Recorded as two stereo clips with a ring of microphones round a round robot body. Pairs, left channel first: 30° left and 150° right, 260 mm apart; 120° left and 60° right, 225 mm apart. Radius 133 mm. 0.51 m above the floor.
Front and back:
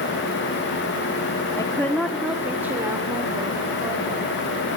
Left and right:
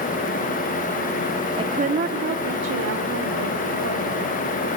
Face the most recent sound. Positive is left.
turn(degrees=-75)